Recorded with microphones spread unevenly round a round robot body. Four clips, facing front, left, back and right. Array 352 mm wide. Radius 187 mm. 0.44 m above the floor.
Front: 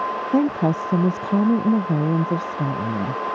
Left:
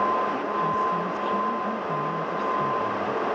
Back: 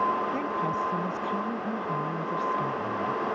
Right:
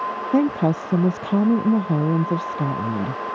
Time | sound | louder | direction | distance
0.3 | a woman speaking | right 6 dB, front 9 dB | 45° right | ?